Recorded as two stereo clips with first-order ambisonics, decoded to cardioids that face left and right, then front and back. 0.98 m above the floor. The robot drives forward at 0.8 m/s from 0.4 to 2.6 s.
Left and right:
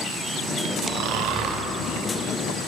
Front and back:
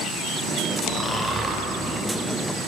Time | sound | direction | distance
0.8 | snoring | 60° right | 0.6 m